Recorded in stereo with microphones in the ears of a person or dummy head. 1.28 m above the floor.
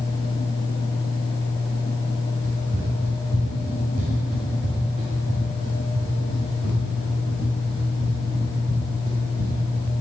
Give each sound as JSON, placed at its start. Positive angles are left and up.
{"t": 2.4, "sound": "running footsteps", "side_deg": -45, "distance_m": 4.5}